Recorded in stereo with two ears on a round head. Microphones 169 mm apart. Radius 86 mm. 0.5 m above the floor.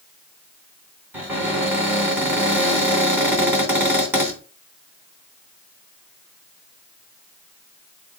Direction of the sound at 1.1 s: 10° right (ahead or behind).